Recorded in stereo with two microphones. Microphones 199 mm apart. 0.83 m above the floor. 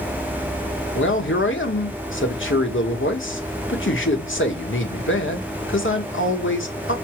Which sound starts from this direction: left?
A man speaking, at 0.9 s.